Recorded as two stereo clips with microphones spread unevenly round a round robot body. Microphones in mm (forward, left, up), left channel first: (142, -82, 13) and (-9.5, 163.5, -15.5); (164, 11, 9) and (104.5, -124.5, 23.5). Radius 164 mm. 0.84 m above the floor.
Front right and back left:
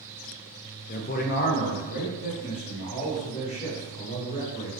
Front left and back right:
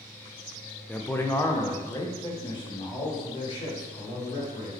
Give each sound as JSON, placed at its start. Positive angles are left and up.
{"t": 0.9, "sound": "a man speaking", "azimuth_deg": -10, "distance_m": 0.5}